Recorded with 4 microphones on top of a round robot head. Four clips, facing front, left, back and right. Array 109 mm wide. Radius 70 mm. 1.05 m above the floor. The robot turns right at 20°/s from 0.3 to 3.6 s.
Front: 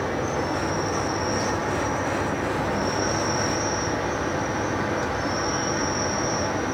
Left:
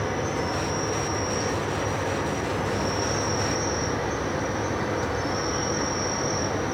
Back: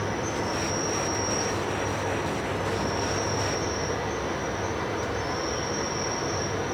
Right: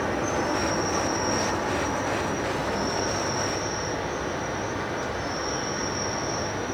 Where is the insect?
65° right, 1.9 m; by 6.8 s 5° left, 1.9 m.